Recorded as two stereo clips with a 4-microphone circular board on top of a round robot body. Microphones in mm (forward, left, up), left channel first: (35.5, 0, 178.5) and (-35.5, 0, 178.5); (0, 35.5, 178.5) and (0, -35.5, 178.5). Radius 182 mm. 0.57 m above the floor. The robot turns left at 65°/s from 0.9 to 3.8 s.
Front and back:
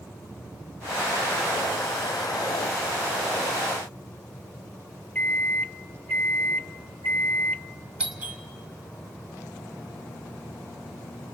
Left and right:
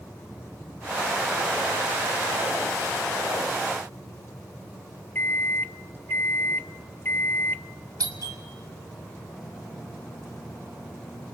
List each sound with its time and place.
5.2 s a microwave: 55° left, 0.7 m
8.0 s a doorbell: 110° right, 2.5 m